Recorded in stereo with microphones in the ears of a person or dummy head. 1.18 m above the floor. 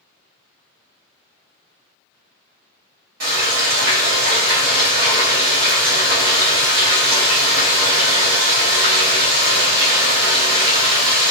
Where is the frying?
55° right (ahead or behind), 1.5 m.